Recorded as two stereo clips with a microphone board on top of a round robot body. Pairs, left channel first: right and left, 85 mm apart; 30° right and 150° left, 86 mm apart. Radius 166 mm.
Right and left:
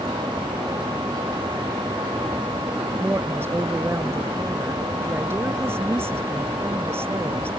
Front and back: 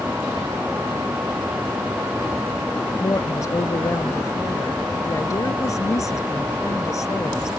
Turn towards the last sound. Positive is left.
turn(degrees=25)